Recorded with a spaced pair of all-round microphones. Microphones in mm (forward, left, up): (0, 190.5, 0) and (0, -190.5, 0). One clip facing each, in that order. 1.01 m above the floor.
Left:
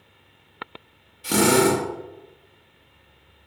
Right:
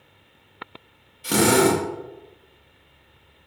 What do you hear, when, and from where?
1.2 s a drill: centre (ahead or behind), 1.2 m